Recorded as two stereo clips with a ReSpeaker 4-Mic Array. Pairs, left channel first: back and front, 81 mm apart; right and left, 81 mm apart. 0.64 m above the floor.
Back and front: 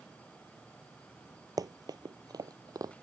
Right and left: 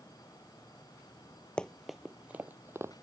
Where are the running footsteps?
15° right; by 3.0 s 40° left.